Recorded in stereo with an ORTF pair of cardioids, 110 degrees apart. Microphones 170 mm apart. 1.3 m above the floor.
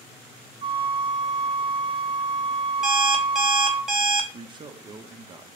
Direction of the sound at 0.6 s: 30° right.